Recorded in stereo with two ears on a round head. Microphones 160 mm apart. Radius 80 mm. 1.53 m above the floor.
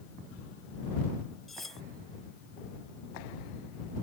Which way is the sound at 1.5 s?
Centre (ahead or behind).